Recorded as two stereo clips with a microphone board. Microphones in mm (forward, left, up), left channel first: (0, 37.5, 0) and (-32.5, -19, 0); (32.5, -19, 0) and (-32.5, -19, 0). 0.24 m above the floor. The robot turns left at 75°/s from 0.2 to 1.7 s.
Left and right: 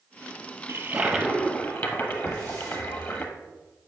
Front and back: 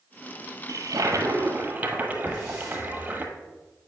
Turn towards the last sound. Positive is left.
turn(degrees=-65)